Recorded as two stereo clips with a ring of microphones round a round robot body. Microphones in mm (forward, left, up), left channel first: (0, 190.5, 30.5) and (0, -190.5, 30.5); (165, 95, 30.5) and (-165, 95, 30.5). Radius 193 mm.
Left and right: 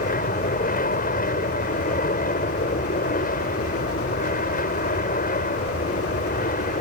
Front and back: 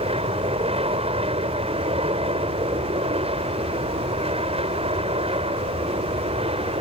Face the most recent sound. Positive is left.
turn(degrees=130)